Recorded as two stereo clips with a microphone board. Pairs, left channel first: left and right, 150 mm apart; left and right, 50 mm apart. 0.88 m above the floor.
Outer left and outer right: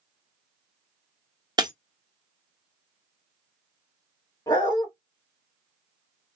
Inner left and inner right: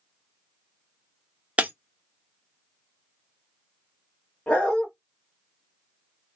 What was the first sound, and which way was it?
Breaking glass, 30° right (ahead or behind).